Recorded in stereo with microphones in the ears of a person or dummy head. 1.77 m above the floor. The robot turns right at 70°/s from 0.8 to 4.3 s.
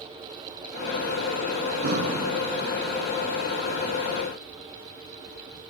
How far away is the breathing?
About 0.8 m.